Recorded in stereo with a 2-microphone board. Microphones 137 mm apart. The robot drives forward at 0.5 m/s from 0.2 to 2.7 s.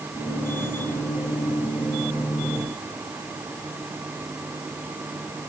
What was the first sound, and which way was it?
Only background noise.